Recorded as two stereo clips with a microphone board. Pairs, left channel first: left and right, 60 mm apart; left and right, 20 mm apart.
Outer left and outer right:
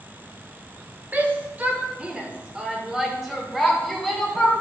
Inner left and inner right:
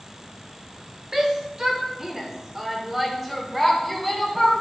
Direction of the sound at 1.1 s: 25° right (ahead or behind).